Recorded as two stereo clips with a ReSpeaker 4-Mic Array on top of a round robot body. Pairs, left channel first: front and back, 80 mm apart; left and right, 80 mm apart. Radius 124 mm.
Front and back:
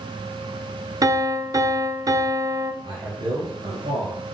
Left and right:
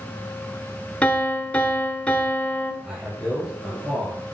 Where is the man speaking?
170° right, 3.5 m.